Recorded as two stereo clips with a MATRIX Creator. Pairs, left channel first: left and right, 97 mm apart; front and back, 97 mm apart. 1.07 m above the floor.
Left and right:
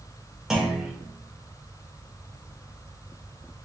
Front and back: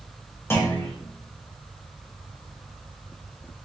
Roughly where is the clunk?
Ahead.